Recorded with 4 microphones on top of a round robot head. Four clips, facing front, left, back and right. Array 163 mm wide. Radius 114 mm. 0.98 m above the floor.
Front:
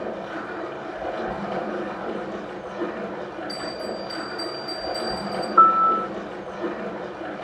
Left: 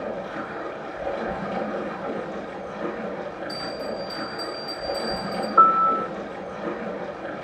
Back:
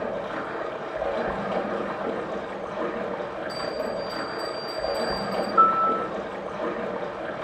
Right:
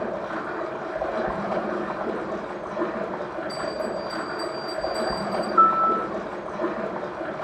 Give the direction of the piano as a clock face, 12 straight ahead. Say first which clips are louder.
Left 2 dB, front 4 dB; 10 o'clock.